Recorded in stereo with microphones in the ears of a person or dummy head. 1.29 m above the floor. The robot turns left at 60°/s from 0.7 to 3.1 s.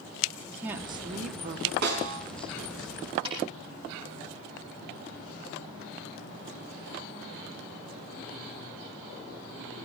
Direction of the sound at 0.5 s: 15° right.